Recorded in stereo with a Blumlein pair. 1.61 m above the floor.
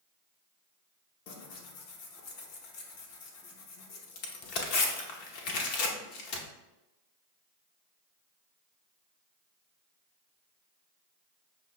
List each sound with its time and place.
1.3 s tearing paper: 45° left, 0.8 m